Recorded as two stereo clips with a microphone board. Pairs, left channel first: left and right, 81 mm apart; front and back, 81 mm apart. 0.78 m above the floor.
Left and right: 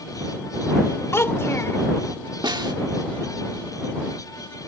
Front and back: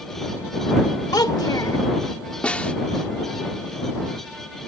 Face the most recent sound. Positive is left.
turn(degrees=-75)